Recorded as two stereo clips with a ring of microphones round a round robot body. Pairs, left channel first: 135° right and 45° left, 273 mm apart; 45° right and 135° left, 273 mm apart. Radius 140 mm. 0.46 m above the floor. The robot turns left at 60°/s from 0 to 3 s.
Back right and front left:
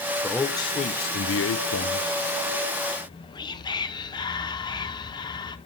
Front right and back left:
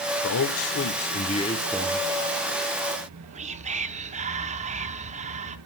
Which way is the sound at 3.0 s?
170° left.